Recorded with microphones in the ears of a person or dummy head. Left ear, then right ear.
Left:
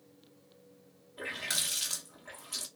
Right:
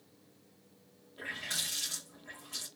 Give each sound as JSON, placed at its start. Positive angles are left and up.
{"t": 1.2, "sound": "a running tap", "side_deg": 20, "distance_m": 0.7}